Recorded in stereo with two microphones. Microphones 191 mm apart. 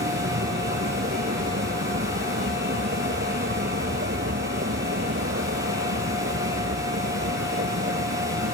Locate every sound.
0.0 s a vehicle: 70° right (ahead or behind); by 8.5 s 90° right